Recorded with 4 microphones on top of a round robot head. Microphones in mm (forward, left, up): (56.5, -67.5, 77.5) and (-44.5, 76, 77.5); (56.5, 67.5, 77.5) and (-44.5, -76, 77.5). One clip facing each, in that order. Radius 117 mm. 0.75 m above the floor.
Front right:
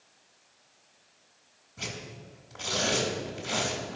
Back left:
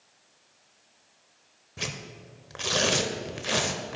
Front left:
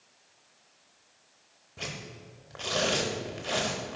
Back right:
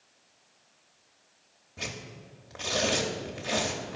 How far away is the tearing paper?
About 0.7 m.